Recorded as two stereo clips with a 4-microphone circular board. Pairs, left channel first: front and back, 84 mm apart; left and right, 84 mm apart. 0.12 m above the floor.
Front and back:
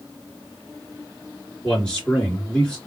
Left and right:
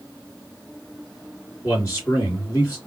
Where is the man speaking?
75° left, 2.0 m.